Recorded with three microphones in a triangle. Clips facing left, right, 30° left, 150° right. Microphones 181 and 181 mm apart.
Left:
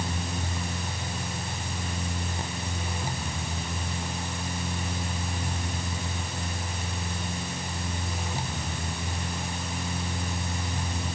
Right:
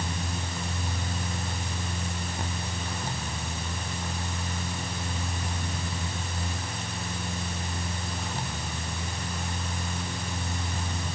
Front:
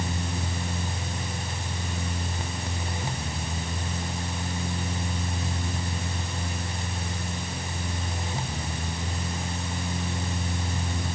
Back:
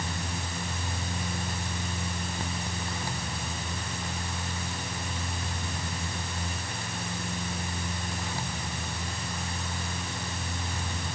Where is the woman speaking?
I don't hear a woman speaking.